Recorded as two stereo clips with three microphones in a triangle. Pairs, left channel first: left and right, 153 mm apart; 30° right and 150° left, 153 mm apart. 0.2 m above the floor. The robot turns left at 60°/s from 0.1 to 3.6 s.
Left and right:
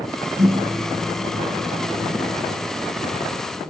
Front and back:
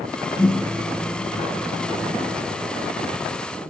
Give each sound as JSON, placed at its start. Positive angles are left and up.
{"t": 0.4, "sound": "a microwave", "azimuth_deg": -85, "distance_m": 3.5}